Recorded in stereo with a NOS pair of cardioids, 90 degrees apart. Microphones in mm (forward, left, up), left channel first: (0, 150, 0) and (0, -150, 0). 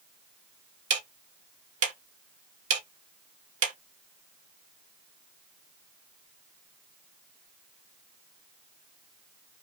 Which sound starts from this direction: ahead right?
Ticking, at 0.9 s.